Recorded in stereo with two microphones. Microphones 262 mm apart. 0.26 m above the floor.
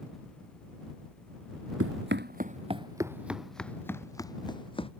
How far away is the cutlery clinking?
I don't hear cutlery clinking.